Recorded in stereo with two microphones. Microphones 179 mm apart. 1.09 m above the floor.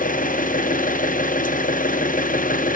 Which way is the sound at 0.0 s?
50° left (ahead or behind).